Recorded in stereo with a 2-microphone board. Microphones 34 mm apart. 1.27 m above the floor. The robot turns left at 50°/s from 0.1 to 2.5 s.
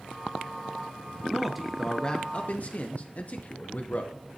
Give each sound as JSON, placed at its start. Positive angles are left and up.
{"t": 1.3, "sound": "a man speaking", "azimuth_deg": -165, "distance_m": 0.6}